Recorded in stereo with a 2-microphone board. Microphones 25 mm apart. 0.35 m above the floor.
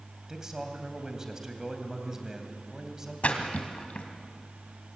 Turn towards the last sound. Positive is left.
turn(degrees=55)  # may be behind; listen again after turning